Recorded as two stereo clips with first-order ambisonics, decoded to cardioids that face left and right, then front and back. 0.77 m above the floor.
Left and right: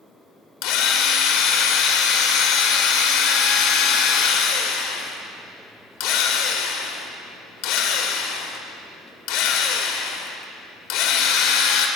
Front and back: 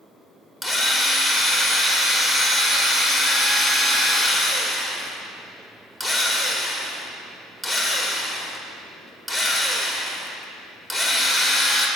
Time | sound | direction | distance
0.6 | a drill | 95° left | 1.2 m